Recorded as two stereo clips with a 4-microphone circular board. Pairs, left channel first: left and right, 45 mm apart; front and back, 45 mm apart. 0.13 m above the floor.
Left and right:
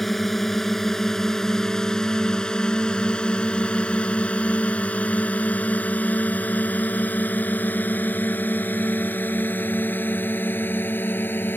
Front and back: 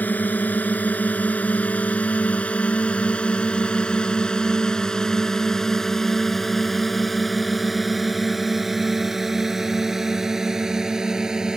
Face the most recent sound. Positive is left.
turn(degrees=110)